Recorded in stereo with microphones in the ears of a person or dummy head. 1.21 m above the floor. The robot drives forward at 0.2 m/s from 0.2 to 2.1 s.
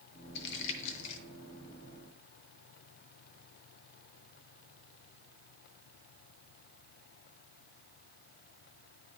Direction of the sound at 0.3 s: 55° left (ahead or behind).